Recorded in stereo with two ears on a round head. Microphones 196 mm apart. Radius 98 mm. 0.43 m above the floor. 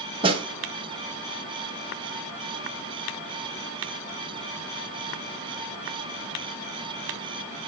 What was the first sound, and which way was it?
A snare drum, 25° right (ahead or behind).